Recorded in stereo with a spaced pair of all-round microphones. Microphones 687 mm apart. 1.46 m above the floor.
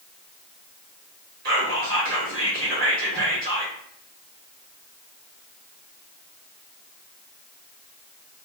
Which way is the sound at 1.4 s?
65° right (ahead or behind).